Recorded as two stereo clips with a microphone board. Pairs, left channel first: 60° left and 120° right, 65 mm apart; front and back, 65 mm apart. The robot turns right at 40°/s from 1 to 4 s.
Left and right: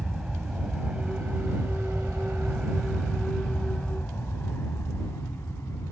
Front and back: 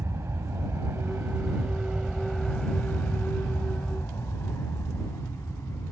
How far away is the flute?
No flute in this recording.